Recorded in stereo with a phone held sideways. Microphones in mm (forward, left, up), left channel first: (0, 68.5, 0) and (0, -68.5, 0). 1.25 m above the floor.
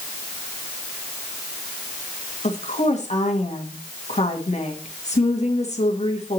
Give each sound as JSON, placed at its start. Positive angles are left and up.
{"t": 2.4, "sound": "a woman speaking", "side_deg": 55, "distance_m": 1.7}